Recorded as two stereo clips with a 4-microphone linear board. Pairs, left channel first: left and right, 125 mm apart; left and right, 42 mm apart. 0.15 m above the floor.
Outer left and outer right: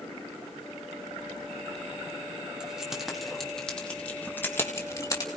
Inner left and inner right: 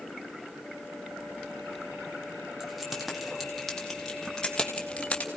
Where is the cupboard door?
I don't hear a cupboard door.